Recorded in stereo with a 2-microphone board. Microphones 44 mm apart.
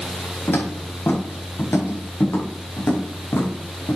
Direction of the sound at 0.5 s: 65° left (ahead or behind).